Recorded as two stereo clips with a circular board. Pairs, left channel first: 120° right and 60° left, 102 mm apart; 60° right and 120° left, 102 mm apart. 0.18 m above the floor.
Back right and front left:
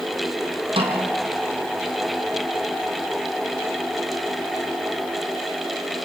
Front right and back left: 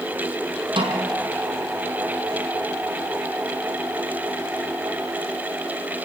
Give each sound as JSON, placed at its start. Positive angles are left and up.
{"t": 0.8, "sound": "a snare drum", "azimuth_deg": 90, "distance_m": 5.0}